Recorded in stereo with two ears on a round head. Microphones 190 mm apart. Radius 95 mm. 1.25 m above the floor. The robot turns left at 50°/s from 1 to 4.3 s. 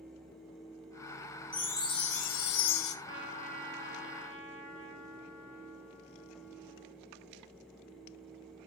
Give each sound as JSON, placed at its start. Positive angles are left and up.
{"t": 1.5, "sound": "a chime", "azimuth_deg": 175, "distance_m": 0.7}
{"t": 3.0, "sound": "a trumpet", "azimuth_deg": -125, "distance_m": 4.0}